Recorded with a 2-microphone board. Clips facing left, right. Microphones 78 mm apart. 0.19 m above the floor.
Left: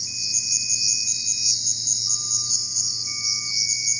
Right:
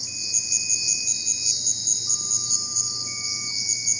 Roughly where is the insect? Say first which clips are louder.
Even; right.